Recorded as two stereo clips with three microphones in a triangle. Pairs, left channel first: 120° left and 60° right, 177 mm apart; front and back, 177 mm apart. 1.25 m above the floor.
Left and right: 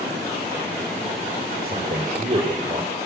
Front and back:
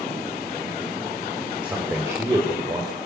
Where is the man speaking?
95° right, 3.5 m; by 3.0 s 115° right, 4.5 m.